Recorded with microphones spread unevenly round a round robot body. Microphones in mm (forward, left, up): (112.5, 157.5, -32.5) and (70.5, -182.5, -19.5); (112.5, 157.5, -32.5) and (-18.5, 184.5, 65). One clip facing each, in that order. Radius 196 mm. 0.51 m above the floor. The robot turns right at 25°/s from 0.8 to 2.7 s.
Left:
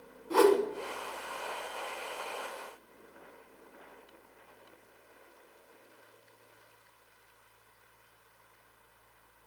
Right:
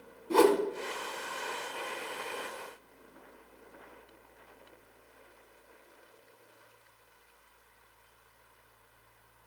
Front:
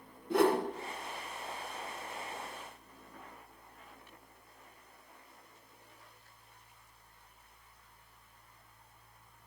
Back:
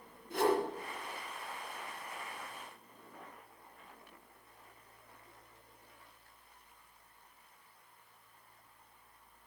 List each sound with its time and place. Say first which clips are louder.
0.3 s a whoosh: even, front 3 dB; 40° right, 1.6 m